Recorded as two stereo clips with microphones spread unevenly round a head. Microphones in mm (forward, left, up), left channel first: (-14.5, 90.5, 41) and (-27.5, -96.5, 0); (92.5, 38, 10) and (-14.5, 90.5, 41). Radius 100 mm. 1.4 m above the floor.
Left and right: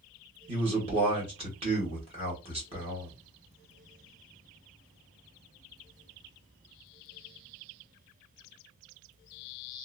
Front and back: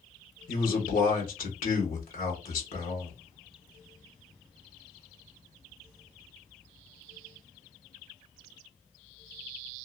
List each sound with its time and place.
0.5 s a man speaking: 30° right, 1.3 m